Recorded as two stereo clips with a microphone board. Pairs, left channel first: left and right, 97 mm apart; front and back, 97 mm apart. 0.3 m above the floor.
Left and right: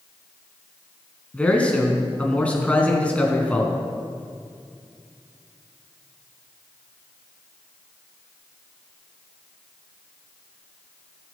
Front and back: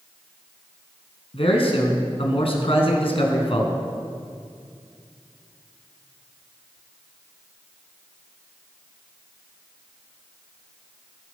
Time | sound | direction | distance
1.3 | a man speaking | 15° left | 3.5 m